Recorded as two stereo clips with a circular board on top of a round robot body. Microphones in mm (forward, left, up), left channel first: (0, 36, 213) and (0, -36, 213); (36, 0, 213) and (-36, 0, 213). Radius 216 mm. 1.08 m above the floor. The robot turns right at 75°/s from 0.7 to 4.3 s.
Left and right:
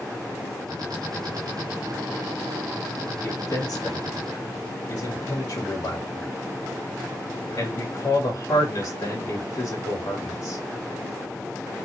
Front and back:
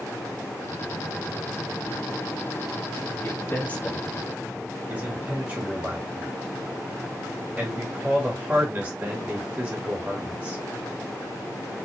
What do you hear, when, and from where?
3.2 s a man speaking: 35° left, 2.5 m; by 10.6 s 120° left, 2.5 m